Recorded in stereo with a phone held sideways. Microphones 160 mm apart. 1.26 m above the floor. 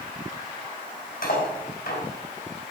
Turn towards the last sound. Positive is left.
turn(degrees=70)  # may be behind; listen again after turning